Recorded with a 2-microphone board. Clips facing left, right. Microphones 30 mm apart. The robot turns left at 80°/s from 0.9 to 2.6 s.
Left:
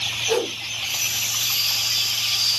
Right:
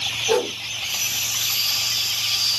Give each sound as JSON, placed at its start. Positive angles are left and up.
{"t": 0.3, "sound": "a whoosh", "side_deg": -15, "distance_m": 0.9}